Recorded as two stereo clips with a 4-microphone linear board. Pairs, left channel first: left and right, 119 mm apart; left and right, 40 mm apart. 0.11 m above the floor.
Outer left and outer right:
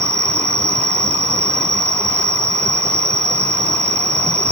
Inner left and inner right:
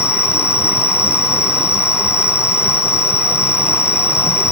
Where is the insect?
25° right (ahead or behind), 0.8 m.